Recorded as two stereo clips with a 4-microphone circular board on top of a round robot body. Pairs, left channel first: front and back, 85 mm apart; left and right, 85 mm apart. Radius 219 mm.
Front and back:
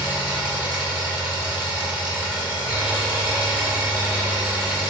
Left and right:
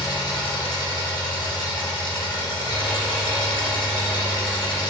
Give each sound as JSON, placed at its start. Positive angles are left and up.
{"t": 0.0, "sound": "an engine running", "azimuth_deg": 105, "distance_m": 1.7}